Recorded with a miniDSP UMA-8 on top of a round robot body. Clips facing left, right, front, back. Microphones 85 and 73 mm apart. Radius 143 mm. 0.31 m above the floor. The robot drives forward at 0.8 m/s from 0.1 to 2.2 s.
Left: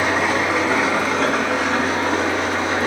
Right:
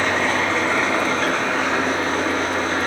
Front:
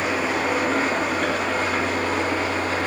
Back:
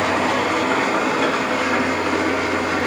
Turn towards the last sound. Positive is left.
turn(degrees=175)